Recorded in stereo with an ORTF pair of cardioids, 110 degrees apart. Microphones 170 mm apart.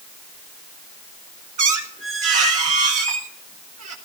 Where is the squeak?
45° right, 2 m.